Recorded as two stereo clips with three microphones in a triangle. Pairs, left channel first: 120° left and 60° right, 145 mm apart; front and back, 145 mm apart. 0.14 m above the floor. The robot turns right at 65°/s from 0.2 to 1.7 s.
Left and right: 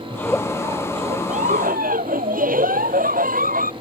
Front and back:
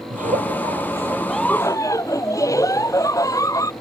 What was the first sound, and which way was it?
A giggle, 165° right.